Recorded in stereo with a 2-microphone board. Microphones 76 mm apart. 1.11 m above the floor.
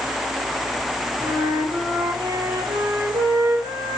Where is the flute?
85° right, 5 m.